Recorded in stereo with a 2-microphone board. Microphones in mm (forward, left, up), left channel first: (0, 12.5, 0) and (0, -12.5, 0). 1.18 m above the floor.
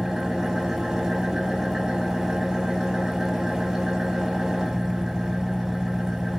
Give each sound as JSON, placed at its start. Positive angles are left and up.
{"t": 0.0, "sound": "an engine running", "side_deg": -20, "distance_m": 1.0}